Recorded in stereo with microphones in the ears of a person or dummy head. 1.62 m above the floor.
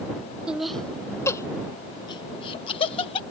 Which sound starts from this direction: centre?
Laughter, at 0.5 s.